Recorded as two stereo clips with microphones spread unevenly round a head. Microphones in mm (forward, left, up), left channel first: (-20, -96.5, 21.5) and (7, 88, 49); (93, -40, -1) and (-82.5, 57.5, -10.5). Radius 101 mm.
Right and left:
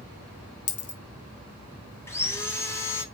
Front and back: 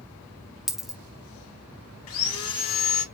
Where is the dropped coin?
115° right, 0.8 m.